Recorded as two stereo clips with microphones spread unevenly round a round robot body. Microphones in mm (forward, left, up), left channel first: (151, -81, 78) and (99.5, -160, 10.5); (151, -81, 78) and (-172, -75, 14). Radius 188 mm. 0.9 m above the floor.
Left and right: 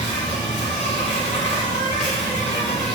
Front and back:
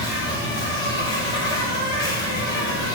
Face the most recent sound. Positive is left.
turn(degrees=85)